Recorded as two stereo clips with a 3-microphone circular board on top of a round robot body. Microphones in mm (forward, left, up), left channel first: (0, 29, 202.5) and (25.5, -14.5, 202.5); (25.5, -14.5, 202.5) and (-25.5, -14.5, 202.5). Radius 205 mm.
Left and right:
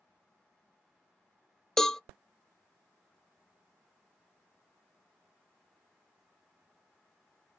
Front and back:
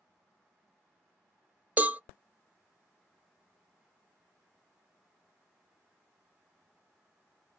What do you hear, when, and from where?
1.8 s a cowbell: 165° right, 0.5 m